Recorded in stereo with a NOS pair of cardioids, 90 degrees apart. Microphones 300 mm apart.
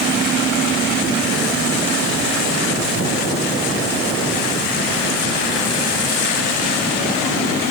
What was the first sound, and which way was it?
Only background noise.